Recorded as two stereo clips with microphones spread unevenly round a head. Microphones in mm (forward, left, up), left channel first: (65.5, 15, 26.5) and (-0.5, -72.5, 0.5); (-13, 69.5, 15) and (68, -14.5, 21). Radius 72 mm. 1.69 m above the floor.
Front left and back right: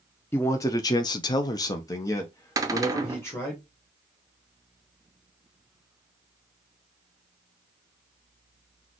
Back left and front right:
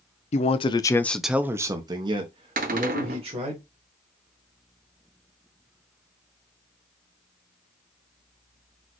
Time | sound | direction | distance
0.3 | a man speaking | 120° left | 0.6 m
2.6 | a cupboard door | 65° right | 0.8 m